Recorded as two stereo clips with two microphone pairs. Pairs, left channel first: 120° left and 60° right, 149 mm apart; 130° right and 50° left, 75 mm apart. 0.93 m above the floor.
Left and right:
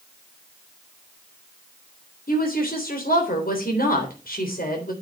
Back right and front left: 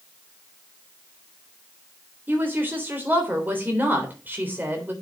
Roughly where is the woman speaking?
Behind left.